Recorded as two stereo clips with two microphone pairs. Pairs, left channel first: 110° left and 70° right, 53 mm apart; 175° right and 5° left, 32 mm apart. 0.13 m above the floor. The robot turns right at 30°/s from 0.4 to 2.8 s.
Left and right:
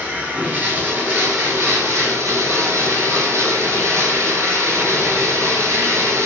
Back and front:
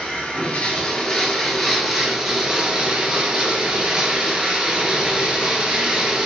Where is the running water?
120° right, 0.8 m; by 6.3 s 50° right, 0.8 m.